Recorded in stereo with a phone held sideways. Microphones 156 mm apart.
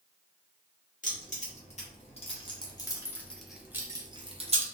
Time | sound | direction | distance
1.0 | keys jangling | 55° left (ahead or behind) | 1.5 m